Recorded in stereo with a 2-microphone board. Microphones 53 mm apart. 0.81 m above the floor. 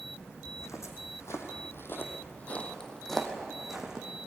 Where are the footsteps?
75° left (ahead or behind), 3 m; by 4.1 s 10° right (ahead or behind), 3 m.